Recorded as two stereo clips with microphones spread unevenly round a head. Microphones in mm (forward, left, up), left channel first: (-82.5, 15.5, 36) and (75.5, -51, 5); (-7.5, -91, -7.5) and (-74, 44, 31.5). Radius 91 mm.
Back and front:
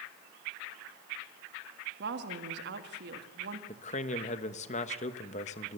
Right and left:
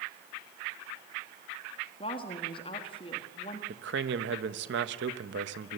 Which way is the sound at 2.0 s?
5° right.